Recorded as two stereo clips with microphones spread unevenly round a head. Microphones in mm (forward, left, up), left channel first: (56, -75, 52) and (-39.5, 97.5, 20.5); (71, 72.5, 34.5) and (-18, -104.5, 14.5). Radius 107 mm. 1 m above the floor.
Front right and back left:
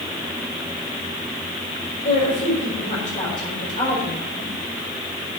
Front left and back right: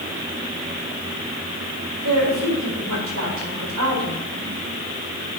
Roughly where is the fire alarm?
No fire alarm in this recording.